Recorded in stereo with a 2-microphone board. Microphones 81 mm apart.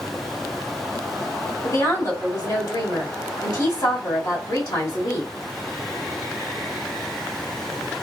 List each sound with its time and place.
1.6 s a woman speaking: 55° left (ahead or behind), 2.0 m